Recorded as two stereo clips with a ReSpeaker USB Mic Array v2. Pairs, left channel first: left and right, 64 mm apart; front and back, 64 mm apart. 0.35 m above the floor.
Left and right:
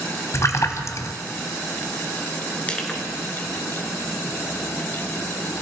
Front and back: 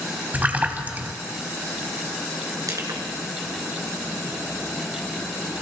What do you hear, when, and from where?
0.3 s a splash: 120° left, 1.6 m
2.7 s crushing: 160° left, 3.5 m